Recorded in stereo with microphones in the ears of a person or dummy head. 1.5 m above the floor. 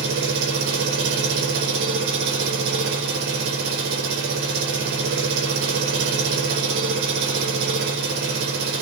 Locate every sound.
0.0 s an engine running: 65° right (ahead or behind), 1.2 m